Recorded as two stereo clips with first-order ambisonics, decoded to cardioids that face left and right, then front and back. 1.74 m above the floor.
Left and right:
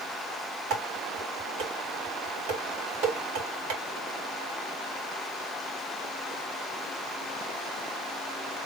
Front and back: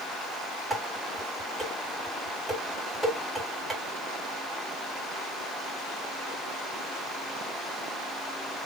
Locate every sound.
0.7 s dishes clattering: 100° right, 2.5 m